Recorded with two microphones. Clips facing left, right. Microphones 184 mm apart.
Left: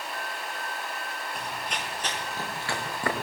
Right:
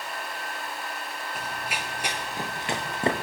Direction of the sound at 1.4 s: 5° right (ahead or behind).